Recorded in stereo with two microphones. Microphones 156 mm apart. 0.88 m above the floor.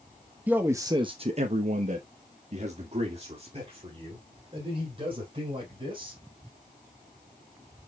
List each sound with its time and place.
0.5 s a man speaking: 10° right (ahead or behind), 1.1 m; by 6.2 s 35° right (ahead or behind), 5 m